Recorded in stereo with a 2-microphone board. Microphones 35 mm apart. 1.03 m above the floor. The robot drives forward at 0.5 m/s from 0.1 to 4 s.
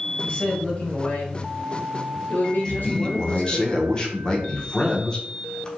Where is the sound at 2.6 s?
25° left (ahead or behind), 0.7 m.